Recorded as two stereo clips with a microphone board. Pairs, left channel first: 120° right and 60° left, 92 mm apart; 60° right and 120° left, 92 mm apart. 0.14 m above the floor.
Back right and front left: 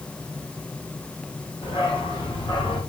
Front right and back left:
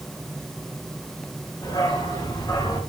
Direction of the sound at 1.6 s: 100° right.